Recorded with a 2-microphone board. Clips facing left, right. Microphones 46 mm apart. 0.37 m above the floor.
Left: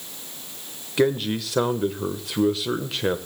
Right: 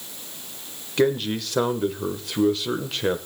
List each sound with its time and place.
1.0 s a man speaking: centre (ahead or behind), 1.0 m